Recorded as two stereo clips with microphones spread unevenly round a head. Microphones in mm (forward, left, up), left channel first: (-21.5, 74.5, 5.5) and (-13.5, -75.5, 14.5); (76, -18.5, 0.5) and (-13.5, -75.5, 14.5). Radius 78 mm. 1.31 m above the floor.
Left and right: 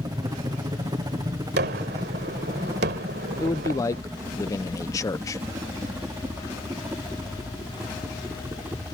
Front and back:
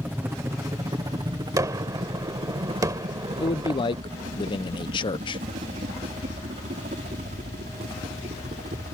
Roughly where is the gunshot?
Right.